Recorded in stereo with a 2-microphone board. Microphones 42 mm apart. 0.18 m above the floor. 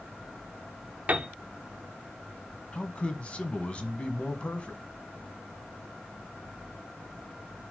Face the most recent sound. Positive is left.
turn(degrees=25)  # may be behind; listen again after turning